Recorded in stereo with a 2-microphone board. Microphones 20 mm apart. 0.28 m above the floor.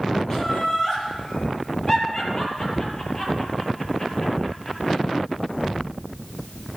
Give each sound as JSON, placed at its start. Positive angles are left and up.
{"t": 0.3, "sound": "laughter", "side_deg": 25, "distance_m": 8.0}